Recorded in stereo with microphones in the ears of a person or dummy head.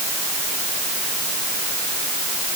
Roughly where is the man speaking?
No man speaking in this recording.